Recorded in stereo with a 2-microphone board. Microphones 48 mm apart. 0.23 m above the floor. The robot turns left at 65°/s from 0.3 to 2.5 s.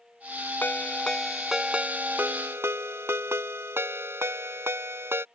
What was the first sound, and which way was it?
A ringtone, 50° left.